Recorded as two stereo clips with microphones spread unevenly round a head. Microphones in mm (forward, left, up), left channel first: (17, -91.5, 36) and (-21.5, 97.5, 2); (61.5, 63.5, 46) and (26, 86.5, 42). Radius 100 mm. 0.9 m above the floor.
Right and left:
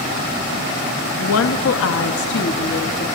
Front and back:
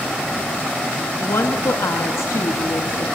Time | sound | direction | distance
1.2 | a woman speaking | 70° right | 1.1 m